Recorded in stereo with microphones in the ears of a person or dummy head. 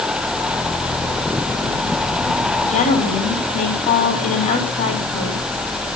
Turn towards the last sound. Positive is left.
turn(degrees=30)  # may be behind; listen again after turning